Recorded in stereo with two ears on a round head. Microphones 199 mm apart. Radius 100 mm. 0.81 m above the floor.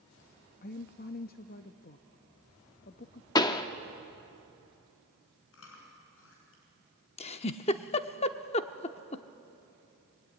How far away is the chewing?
About 6 m.